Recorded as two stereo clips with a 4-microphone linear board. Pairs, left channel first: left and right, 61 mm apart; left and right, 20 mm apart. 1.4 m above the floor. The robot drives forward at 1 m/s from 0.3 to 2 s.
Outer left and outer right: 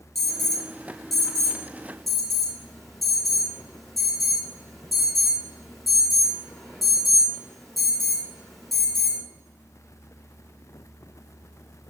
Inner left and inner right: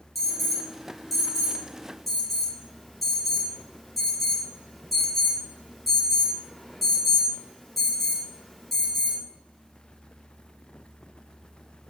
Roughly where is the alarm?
Centre.